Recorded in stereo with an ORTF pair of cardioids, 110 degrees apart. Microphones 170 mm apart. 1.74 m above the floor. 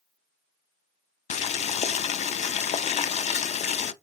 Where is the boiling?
45° left, 0.5 m.